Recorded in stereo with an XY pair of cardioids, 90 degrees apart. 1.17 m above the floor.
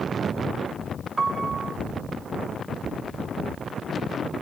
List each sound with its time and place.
1.2 s a piano: 30° right, 0.7 m